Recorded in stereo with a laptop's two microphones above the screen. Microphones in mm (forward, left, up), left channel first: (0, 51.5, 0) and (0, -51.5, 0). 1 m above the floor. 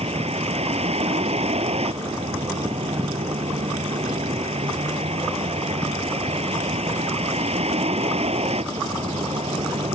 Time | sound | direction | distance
0.0 | a vehicle | 85° right | ?